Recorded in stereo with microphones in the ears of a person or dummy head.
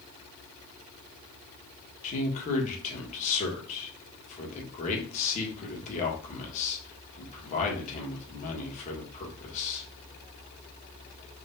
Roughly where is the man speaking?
Left.